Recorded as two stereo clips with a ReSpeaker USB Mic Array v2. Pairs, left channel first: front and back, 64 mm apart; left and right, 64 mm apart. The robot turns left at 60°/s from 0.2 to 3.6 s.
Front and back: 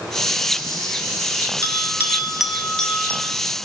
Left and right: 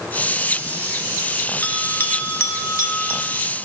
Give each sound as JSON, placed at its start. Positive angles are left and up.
{"t": 1.6, "sound": "a bell", "azimuth_deg": 145, "distance_m": 0.9}